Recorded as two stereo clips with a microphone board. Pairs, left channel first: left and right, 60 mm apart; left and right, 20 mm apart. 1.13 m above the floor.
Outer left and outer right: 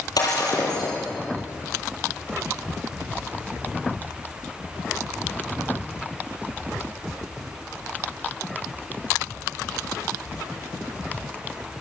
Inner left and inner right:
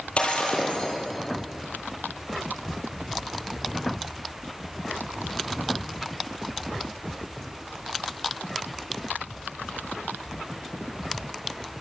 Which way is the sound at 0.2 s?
80° left.